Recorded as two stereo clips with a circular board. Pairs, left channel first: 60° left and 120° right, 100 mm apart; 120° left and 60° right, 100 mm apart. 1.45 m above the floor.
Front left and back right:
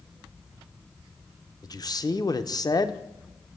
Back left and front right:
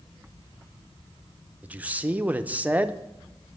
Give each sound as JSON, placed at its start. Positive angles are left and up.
{"t": 1.6, "sound": "a man speaking", "azimuth_deg": 15, "distance_m": 0.7}